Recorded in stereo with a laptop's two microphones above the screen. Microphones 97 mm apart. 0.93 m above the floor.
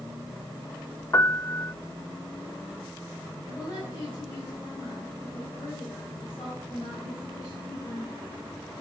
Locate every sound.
1.1 s a piano: 35° left (ahead or behind), 0.6 m
3.4 s a woman speaking: 45° left (ahead or behind), 5 m